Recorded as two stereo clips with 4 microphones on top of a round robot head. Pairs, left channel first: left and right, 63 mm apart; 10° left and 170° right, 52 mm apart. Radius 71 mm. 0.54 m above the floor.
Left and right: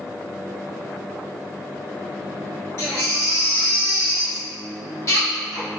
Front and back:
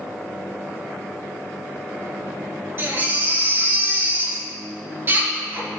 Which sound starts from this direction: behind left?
A baby crying, at 2.8 s.